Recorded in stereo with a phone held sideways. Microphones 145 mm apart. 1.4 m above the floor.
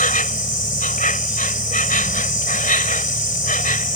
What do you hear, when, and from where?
0.0 s an insect: 70° left (ahead or behind)